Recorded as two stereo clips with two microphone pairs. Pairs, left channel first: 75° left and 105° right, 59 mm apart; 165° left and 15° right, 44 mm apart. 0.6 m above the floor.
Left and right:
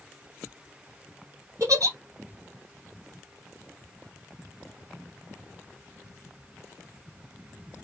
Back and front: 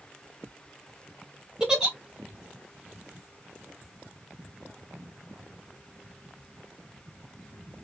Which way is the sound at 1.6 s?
90° right.